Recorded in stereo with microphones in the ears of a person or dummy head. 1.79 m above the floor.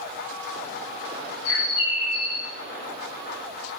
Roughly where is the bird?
Left.